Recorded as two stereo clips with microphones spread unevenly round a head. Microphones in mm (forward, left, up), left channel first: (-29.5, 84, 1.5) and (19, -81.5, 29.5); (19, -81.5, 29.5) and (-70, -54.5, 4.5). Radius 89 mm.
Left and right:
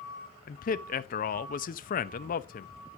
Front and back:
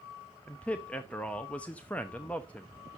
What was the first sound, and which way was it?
A man speaking, 70° left.